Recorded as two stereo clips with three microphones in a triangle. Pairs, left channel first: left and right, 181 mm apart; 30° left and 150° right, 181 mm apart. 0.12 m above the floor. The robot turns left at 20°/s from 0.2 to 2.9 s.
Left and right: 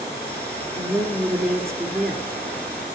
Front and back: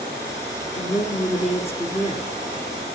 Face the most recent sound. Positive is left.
turn(degrees=-20)